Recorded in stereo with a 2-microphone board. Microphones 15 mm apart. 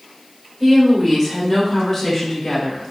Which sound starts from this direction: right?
A woman speaking, at 0.6 s.